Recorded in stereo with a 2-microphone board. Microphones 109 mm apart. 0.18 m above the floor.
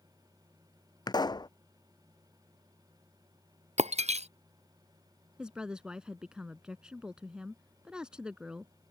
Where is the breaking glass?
85° right.